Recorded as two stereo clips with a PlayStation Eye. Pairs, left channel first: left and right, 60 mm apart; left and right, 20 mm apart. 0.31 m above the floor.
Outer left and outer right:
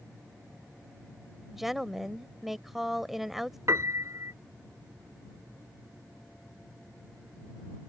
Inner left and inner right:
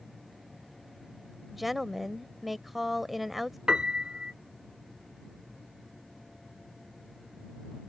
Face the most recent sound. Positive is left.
turn(degrees=-50)  # may be behind; listen again after turning